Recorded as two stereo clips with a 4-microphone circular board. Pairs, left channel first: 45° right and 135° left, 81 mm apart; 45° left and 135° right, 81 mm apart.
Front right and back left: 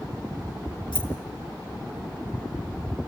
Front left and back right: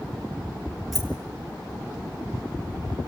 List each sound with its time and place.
0.9 s keys jangling: 45° right, 5 m